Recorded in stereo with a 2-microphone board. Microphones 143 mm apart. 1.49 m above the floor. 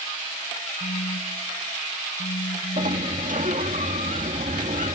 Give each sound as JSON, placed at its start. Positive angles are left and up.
{"t": 0.8, "sound": "a phone buzzing", "side_deg": 75}
{"t": 2.8, "sound": "a sliding door", "side_deg": -70}